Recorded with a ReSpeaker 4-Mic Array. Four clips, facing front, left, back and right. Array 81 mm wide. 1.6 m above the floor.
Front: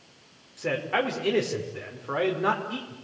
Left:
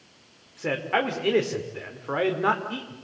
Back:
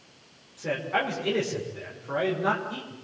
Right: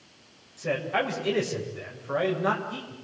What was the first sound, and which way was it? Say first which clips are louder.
A man speaking: left 2 dB, front 1 dB; 75° left.